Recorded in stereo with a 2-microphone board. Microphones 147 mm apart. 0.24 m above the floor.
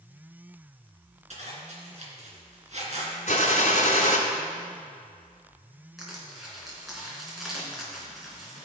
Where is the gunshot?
50° left (ahead or behind), 1.7 m.